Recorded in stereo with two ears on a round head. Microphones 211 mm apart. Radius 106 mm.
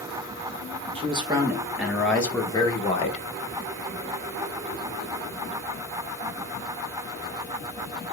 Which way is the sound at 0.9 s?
25° right (ahead or behind).